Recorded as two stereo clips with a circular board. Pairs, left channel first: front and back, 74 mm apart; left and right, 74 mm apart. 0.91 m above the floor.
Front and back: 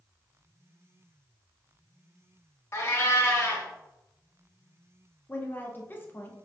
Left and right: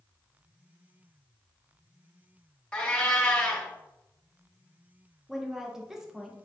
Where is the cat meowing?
20° left, 0.8 m.